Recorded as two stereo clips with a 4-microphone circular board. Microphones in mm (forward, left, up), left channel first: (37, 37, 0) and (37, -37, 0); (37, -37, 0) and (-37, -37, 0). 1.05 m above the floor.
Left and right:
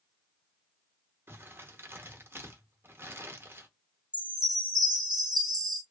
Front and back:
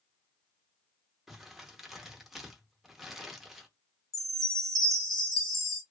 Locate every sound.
1.3 s crumpling: 100° right, 0.7 m
4.1 s a chime: 85° right, 1.1 m